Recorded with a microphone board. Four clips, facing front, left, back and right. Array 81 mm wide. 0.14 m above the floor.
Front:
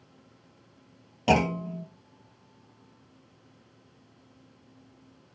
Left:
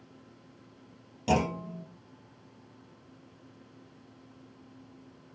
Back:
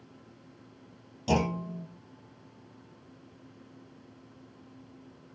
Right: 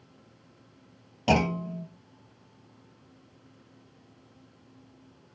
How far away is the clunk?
About 1.5 m.